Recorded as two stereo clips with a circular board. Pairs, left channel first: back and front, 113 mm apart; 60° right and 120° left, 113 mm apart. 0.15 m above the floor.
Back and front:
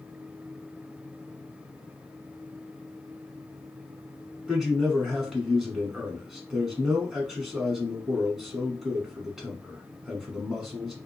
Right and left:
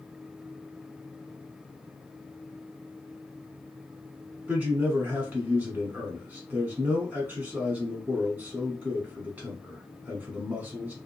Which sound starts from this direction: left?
A man speaking, at 4.5 s.